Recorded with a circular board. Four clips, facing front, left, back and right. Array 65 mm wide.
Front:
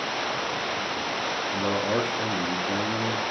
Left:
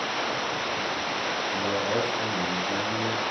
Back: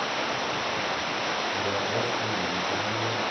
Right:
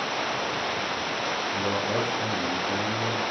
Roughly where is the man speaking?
Ahead.